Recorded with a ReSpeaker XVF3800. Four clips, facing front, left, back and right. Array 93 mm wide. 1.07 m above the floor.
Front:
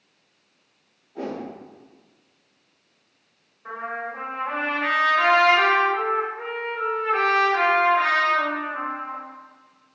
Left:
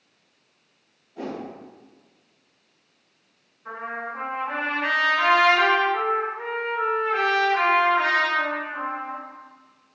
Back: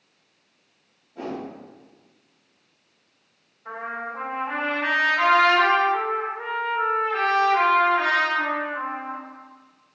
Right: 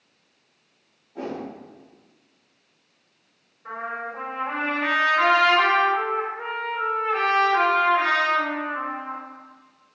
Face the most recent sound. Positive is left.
turn(degrees=-40)